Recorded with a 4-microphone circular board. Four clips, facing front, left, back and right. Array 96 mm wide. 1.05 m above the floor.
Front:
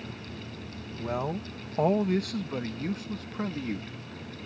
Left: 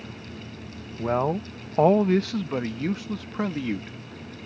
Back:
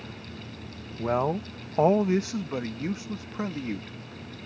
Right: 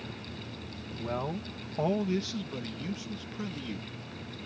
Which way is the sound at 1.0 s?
125° left.